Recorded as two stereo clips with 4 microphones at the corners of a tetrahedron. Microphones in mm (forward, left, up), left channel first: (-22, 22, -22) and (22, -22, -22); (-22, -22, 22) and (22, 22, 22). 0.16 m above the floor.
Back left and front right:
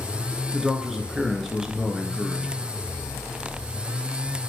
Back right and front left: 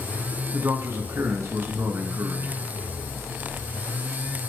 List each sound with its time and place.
0.5 s a man speaking: 35° left, 2 m